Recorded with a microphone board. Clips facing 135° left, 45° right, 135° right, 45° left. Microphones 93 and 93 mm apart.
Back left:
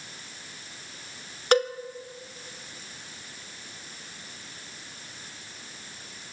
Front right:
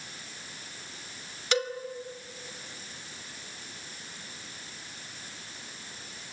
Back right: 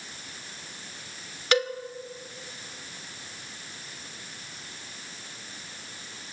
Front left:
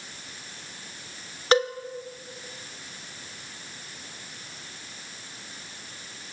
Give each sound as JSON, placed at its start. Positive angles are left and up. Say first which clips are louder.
{"t": 1.5, "sound": "a cowbell", "louder": "back left 7 dB, front left 3 dB", "azimuth_deg": 100, "distance_m": 2.0}